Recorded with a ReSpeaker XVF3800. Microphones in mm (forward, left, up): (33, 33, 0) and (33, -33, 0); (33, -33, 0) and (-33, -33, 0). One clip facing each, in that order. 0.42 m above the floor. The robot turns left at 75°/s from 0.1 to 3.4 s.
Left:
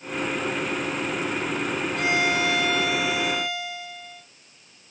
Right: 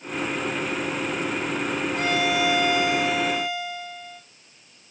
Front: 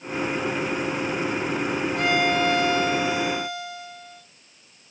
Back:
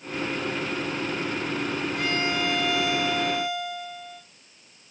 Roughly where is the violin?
Ahead.